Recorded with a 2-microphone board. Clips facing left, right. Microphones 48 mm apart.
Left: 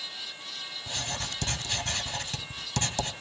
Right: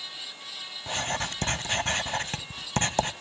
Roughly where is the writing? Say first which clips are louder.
Right 6 dB; right.